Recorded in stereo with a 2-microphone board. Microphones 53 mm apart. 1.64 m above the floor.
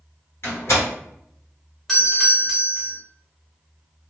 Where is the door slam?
55° left (ahead or behind), 1.3 m.